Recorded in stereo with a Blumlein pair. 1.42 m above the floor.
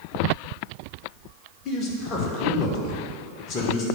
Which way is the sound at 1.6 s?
30° left.